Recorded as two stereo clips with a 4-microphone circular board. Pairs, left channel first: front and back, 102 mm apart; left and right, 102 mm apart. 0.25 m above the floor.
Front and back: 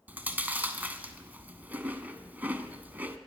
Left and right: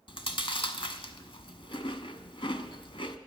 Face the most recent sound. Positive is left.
turn(degrees=110)